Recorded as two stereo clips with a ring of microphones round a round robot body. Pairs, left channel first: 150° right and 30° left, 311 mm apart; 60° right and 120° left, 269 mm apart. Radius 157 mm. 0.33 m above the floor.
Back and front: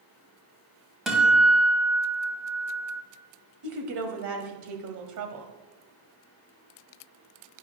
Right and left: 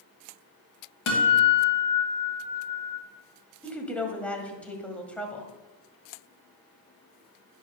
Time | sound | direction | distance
1.1 | a guitar | 60° right | 2.5 m
3.6 | a woman speaking | 25° left | 1.8 m